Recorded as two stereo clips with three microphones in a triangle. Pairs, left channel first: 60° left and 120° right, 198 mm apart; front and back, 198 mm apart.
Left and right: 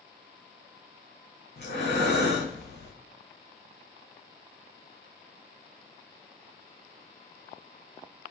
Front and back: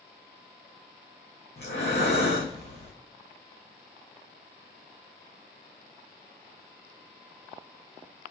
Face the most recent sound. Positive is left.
turn(degrees=30)